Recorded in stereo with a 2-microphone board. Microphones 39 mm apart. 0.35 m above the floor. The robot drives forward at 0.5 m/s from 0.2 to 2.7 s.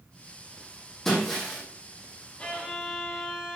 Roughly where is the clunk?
I don't hear a clunk.